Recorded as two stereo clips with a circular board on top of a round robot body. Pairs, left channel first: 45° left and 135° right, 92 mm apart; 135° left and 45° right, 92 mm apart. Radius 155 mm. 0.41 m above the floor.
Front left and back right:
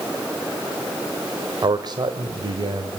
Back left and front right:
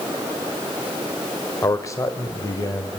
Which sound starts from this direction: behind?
A man speaking, at 1.6 s.